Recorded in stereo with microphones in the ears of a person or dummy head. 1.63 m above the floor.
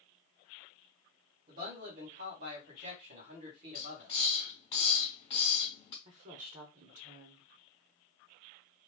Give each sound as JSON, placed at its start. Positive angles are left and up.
{"t": 1.5, "sound": "a man speaking", "side_deg": -50, "distance_m": 1.8}
{"t": 3.8, "sound": "a hiss", "side_deg": 25, "distance_m": 1.9}
{"t": 6.0, "sound": "a woman speaking", "side_deg": -35, "distance_m": 0.7}